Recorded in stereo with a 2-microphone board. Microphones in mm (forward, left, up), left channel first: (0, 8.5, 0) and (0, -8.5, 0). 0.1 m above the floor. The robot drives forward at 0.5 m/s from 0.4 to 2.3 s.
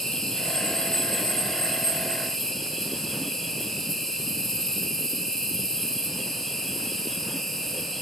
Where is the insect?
40° left (ahead or behind), 1.5 m; by 8.0 s 25° left (ahead or behind), 2.5 m.